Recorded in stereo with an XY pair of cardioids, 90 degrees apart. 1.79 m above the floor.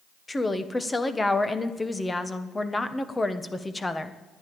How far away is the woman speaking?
About 1.4 m.